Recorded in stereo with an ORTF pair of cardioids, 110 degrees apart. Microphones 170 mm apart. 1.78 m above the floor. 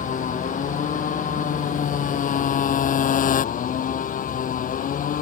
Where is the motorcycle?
50° left.